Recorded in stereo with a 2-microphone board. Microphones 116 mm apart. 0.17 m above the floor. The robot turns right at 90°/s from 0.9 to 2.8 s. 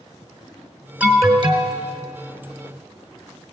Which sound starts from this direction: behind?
An alarm, at 1.0 s.